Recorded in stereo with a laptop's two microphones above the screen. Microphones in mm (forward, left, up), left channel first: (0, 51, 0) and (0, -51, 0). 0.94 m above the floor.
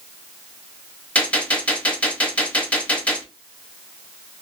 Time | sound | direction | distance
1.1 | a gunshot | 10° left (ahead or behind) | 0.9 m